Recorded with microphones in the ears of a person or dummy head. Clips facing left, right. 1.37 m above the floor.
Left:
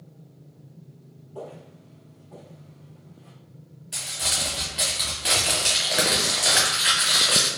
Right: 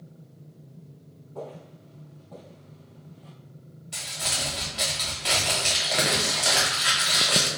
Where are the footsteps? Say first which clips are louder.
Even; 15° left (ahead or behind), 1.6 m; by 3.3 s 35° right (ahead or behind), 1.6 m.